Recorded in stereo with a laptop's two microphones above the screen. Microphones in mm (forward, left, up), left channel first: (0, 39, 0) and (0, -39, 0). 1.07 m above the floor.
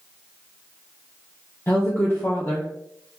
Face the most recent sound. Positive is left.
turn(degrees=30)  # may be behind; listen again after turning